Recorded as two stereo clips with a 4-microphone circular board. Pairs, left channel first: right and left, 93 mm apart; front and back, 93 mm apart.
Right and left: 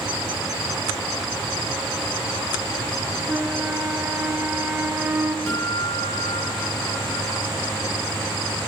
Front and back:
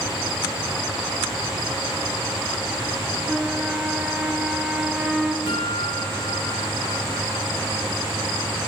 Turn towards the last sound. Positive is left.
turn(degrees=-30)